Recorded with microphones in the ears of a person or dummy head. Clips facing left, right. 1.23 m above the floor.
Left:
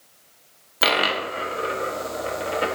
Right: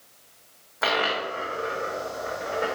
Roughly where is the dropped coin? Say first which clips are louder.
Left 3 dB; left.